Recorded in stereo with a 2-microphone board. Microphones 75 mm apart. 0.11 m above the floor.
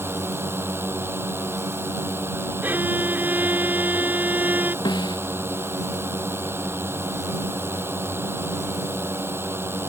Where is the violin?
25° right (ahead or behind).